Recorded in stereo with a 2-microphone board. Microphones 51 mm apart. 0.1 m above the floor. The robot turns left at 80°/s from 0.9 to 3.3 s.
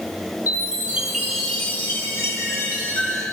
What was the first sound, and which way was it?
A chime, 155° right.